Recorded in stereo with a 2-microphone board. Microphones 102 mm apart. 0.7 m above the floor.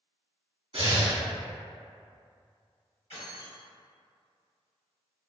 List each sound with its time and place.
0.7 s breathing: 60° right (ahead or behind), 0.9 m
3.1 s keys jangling: 85° left, 1.7 m